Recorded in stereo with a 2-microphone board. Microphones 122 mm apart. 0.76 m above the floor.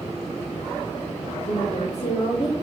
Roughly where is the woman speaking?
Left.